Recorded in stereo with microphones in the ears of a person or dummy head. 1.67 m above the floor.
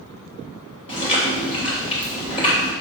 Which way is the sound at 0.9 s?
30° left (ahead or behind).